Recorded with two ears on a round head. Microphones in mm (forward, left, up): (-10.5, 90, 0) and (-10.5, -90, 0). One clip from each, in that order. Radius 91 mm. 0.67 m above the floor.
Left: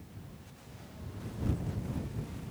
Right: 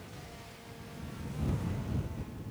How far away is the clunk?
No clunk in this recording.